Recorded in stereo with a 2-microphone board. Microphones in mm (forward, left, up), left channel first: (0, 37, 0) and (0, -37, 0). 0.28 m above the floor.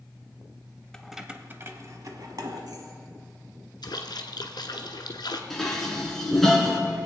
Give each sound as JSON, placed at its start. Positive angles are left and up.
{"t": 0.9, "sound": "keys jangling", "side_deg": 10, "distance_m": 0.8}
{"t": 3.8, "sound": "a splash", "side_deg": 75, "distance_m": 1.1}
{"t": 5.5, "sound": "dishes clattering", "side_deg": 5, "distance_m": 2.0}